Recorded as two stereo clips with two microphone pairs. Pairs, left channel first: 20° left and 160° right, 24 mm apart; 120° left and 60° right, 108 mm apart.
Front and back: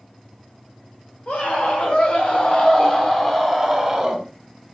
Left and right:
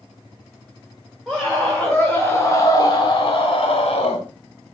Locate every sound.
1.3 s a scream: 30° left, 3 m; by 4.2 s 135° left, 2.5 m